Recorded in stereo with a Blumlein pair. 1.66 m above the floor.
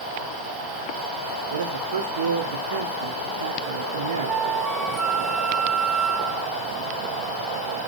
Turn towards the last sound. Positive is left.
turn(degrees=-15)